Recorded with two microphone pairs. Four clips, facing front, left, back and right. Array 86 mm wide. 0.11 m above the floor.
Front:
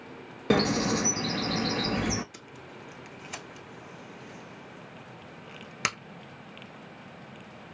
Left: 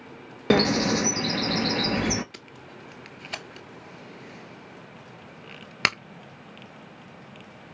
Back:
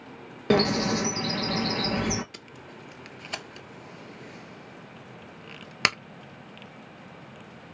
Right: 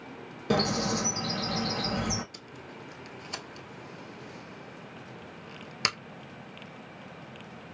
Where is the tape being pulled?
135° left, 0.5 m.